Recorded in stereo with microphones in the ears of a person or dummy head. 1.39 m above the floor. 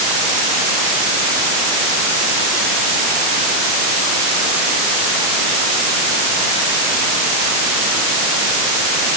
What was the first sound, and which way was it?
Only background noise.